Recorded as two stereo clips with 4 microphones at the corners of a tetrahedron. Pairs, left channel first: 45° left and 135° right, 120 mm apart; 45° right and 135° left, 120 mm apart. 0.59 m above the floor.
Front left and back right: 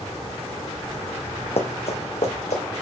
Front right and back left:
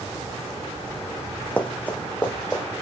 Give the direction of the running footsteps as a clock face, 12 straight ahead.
11 o'clock.